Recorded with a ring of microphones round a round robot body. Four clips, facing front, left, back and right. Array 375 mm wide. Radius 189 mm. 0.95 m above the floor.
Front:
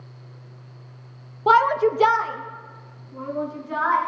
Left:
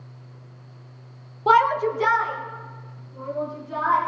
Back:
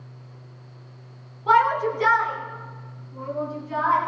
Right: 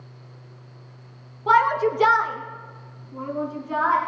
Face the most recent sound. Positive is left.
turn(degrees=-75)